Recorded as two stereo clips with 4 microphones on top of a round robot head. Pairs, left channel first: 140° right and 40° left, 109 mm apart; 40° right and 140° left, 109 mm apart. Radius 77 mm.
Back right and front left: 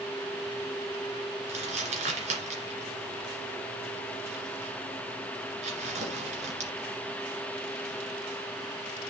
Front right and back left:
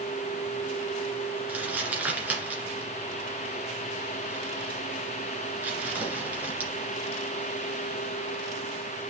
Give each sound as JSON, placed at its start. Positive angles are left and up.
{"t": 1.5, "sound": "crumpling", "azimuth_deg": 65, "distance_m": 2.5}